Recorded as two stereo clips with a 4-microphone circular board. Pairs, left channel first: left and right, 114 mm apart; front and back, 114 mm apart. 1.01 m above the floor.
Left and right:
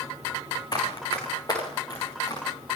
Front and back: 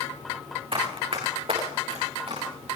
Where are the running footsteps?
140° left, 5 m; by 2.5 s 145° left, 6 m.